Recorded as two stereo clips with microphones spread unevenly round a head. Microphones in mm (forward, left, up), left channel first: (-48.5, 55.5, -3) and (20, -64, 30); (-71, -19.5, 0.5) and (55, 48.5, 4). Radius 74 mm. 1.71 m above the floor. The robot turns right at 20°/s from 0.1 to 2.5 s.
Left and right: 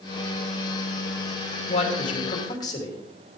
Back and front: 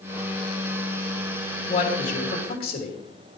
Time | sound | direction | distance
1.7 | a man speaking | 170° left | 3 m